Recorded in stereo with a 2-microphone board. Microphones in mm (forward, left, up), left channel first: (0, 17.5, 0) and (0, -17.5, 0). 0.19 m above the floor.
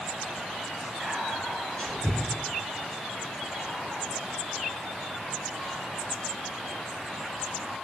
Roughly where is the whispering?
Centre.